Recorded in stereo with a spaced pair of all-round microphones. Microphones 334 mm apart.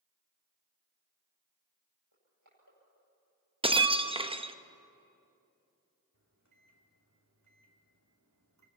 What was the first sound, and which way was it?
Crushing, 55° right (ahead or behind).